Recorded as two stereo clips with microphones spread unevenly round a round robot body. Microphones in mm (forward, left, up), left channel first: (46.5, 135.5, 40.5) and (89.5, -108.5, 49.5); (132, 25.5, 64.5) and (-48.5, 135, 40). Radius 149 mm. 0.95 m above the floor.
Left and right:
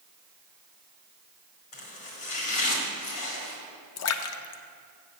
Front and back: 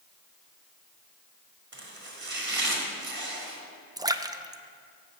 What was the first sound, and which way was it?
Chopping, 115° left.